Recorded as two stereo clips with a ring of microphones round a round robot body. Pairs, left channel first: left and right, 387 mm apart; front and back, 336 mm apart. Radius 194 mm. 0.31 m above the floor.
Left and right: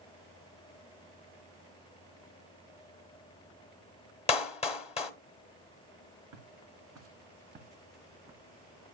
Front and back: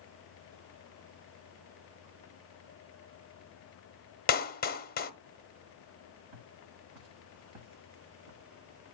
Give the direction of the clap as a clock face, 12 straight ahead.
11 o'clock.